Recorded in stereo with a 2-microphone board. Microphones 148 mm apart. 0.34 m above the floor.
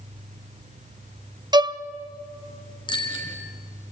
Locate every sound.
1.5 s a violin: 30° right (ahead or behind), 0.5 m
2.9 s a bicycle bell: 30° left (ahead or behind), 3 m